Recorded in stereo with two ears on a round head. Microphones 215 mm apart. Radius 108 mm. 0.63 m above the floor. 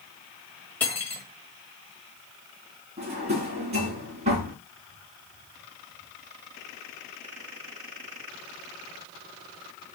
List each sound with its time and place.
0.8 s cutlery clinking: 10° left (ahead or behind), 1.8 m
3.0 s a drawer: 25° right (ahead or behind), 2.5 m